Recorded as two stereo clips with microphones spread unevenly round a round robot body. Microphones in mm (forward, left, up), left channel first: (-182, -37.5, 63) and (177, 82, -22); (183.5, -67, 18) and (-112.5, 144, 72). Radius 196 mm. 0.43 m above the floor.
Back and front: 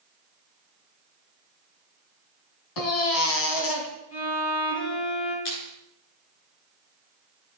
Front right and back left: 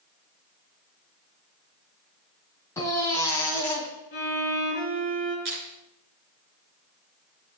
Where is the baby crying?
120° right, 2 m.